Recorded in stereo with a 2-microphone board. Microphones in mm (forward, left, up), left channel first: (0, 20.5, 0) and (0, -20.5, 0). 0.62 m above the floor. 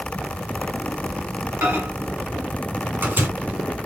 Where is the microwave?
55° right (ahead or behind), 1.8 m.